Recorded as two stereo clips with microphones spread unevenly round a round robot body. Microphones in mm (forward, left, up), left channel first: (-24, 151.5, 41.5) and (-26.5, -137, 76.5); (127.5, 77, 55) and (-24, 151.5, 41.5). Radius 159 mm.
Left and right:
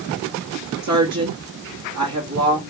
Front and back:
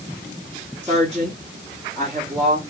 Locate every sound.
0.8 s a woman speaking: 115° right, 1.7 m